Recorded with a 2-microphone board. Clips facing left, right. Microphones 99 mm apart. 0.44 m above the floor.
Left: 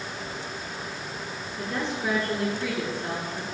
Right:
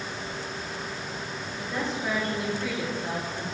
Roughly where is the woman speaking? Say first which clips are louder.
Left 1 dB; left.